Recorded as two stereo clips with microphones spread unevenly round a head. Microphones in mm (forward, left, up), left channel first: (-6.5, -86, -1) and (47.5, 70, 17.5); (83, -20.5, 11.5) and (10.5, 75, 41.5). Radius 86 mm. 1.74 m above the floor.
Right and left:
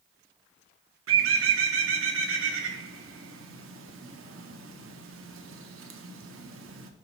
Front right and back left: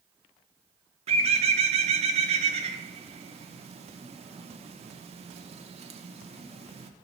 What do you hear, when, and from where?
1.1 s a bird: 90° left, 0.6 m